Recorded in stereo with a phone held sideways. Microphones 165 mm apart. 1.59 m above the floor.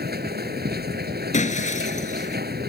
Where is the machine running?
75° right (ahead or behind).